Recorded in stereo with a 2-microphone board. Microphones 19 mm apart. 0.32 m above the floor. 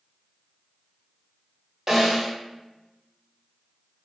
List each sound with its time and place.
1.9 s a snare drum: 20° right (ahead or behind), 1.4 m